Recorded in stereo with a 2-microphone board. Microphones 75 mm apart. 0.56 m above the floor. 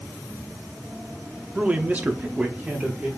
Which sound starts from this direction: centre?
A man speaking, at 1.6 s.